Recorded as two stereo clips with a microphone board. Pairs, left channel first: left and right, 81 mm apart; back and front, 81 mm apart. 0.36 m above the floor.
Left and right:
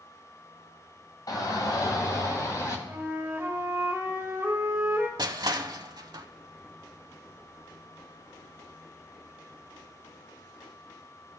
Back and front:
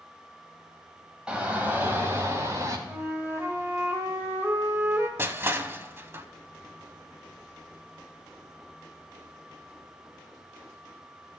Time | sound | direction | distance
1.3 | a shout | 75° left | 2.5 m
2.9 | a flute | 40° right | 1.5 m
5.2 | crushing | 60° right | 0.6 m